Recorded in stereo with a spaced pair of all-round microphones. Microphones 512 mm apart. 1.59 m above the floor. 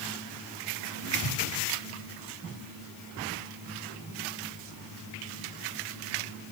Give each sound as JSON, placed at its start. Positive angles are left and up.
{"t": 1.2, "sound": "an explosion", "side_deg": 75, "distance_m": 5.5}